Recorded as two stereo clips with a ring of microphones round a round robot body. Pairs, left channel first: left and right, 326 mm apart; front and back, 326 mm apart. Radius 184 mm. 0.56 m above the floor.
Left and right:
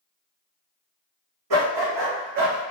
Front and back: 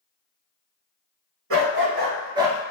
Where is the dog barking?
130° right, 1.1 m; by 2.6 s 90° right, 0.6 m.